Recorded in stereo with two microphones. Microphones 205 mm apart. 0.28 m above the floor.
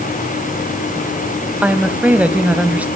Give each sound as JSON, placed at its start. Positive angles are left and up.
{"t": 1.6, "sound": "a woman speaking", "side_deg": -5, "distance_m": 1.8}